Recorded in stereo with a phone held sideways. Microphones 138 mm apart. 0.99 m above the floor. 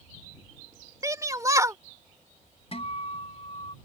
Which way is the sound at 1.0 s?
25° right (ahead or behind).